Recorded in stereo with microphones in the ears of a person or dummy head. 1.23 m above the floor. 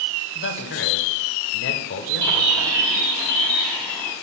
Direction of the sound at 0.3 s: 60° left (ahead or behind).